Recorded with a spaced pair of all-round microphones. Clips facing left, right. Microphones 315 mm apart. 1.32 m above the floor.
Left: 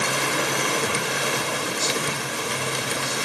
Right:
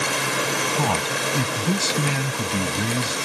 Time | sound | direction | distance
0.8 | a man speaking | 85° right | ?